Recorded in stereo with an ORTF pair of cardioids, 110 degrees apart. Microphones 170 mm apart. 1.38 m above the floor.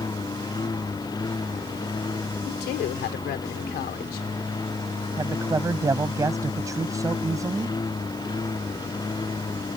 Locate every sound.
0.0 s a lawn mower: 25° left
2.5 s a woman speaking: 70° left
5.2 s a man speaking: 20° right